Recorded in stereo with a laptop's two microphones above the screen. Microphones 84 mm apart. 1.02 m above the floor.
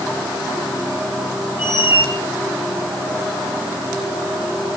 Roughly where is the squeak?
Left.